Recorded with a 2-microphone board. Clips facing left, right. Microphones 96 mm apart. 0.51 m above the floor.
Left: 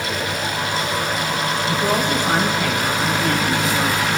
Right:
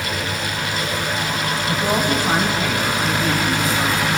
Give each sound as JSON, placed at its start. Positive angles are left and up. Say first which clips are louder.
{"t": 1.7, "sound": "a woman speaking", "louder": "right 1 dB", "side_deg": -20, "distance_m": 3.0}